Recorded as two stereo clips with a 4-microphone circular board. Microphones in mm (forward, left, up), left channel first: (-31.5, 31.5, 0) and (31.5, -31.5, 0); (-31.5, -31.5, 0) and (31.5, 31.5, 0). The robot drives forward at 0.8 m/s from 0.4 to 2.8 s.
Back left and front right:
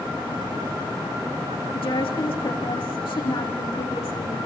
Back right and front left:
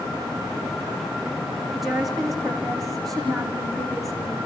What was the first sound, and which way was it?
A woman speaking, 130° left.